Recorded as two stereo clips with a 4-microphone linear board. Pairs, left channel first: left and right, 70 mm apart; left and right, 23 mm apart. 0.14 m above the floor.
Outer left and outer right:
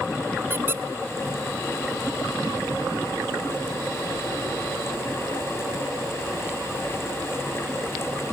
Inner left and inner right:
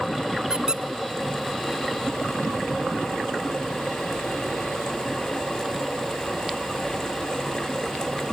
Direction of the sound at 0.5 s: 35° right (ahead or behind).